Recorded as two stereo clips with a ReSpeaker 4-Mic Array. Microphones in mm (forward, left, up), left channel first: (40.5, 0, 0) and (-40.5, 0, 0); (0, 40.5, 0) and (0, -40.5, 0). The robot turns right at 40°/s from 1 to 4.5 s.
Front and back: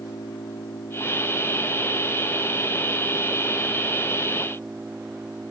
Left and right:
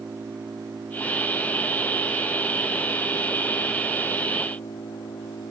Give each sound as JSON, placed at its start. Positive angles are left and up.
{"t": 0.0, "sound": "an engine running", "azimuth_deg": -35}